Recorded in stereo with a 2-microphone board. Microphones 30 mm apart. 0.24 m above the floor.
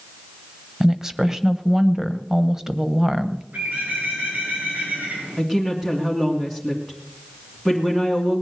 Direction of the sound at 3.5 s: 80° right.